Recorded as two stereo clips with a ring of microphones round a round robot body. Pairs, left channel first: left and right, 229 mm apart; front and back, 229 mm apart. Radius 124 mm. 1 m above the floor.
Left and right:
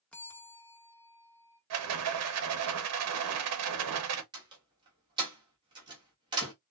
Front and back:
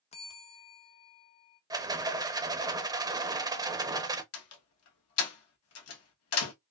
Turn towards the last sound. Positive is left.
turn(degrees=-15)